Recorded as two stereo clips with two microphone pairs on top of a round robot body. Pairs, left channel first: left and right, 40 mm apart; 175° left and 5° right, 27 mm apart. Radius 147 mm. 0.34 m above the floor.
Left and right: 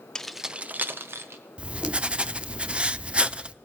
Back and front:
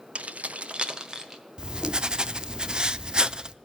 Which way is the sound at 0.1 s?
25° left.